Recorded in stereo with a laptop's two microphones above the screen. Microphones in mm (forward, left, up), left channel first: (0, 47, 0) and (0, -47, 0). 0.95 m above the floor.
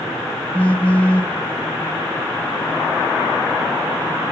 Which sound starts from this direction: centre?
A phone buzzing, at 0.5 s.